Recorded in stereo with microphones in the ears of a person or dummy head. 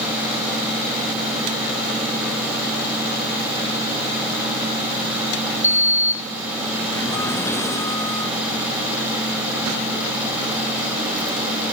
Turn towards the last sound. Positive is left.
turn(degrees=15)  # may be behind; listen again after turning